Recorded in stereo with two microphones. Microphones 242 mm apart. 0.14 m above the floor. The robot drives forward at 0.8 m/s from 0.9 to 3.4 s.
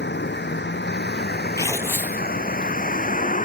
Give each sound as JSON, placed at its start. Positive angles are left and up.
{"t": 0.0, "sound": "a vehicle", "side_deg": 45}
{"t": 1.6, "sound": "tearing paper", "side_deg": 15}